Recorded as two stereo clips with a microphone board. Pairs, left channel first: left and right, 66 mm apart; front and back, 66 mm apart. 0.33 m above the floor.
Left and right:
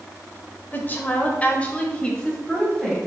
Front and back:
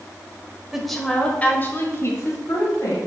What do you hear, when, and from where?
0.7 s a woman speaking: 100° left, 1.2 m; by 3.0 s 10° left, 2 m